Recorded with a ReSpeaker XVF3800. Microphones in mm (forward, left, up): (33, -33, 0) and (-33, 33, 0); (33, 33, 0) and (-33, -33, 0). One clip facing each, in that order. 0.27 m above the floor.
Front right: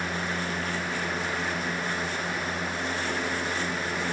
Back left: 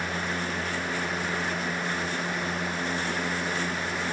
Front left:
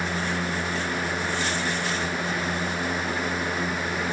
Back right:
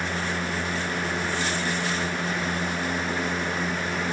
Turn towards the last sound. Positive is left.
No sound to turn to.